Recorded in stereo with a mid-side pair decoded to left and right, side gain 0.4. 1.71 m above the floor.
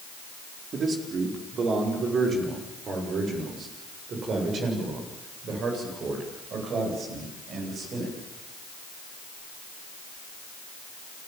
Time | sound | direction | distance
0.7 | a man speaking | 55° right | 5 m